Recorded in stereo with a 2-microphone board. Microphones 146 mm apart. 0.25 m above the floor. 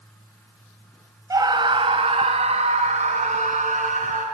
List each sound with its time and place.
1.3 s a scream: 25° right (ahead or behind), 1.1 m; by 4.2 s 60° right (ahead or behind), 3 m